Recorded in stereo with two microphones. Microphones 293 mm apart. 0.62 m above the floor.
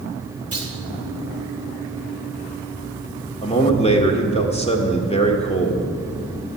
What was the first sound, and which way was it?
A clunk, 50° right (ahead or behind).